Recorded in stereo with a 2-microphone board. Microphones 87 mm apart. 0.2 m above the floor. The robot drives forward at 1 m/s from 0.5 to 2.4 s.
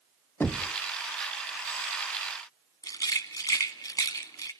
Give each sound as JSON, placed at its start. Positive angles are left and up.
{"t": 0.4, "sound": "knocking", "side_deg": 25, "distance_m": 0.9}
{"t": 2.8, "sound": "a rattle", "side_deg": 45, "distance_m": 1.4}